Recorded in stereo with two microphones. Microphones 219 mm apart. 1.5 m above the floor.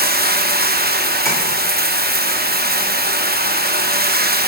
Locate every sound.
0.0 s running water: 45° right (ahead or behind), 0.8 m
1.2 s tapping: 15° left (ahead or behind), 5.5 m